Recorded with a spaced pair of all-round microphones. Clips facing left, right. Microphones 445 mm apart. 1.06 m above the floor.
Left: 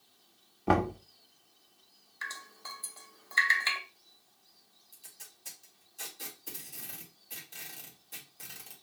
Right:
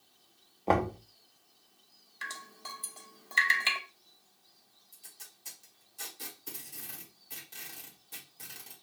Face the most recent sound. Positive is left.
turn(degrees=-20)  # may be behind; listen again after turning